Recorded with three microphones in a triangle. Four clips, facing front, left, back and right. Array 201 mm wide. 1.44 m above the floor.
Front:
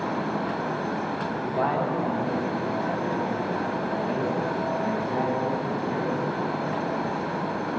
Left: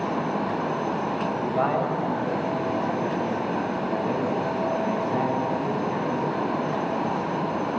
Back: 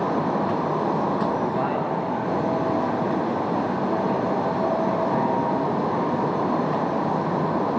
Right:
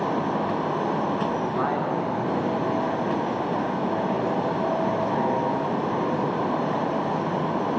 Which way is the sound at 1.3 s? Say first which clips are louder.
Left 1 dB, back 2 dB; 100° left.